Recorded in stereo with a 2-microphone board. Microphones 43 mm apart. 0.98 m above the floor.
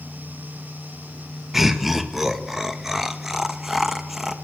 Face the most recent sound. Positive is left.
turn(degrees=-10)  # may be behind; listen again after turning